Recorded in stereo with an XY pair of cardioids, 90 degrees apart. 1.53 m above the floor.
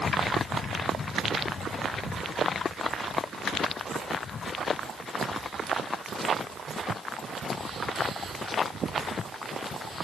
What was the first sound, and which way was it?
Only background noise.